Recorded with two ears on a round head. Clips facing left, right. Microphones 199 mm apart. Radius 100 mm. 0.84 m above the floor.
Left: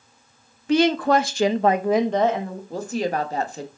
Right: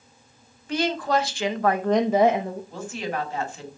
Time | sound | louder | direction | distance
0.7 | a woman speaking | left 6 dB | 60° left (ahead or behind) | 1.0 m
2.7 | a woman speaking | left 10 dB | 35° left (ahead or behind) | 1.4 m